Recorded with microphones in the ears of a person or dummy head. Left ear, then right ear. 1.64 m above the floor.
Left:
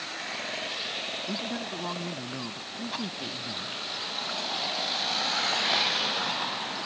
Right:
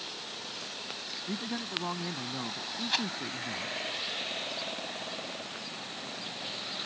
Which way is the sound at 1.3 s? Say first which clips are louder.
Left 2 dB; 15° right (ahead or behind).